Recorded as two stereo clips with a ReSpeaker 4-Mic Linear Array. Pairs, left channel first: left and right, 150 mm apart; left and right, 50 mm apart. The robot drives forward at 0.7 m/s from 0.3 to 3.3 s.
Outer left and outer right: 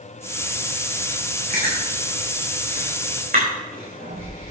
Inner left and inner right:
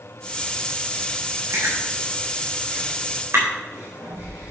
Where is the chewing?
80° right, 3.5 m; by 4.5 s 70° right (ahead or behind), 4 m.